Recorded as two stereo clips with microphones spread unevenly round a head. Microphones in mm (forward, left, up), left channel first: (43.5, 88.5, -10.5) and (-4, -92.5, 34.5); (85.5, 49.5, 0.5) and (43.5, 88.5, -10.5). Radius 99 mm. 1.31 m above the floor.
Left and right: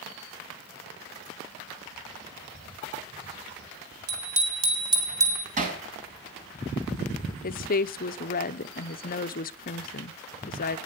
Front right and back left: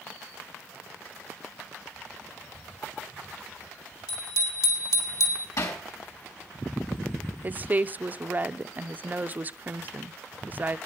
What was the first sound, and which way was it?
A bicycle bell, 60° right.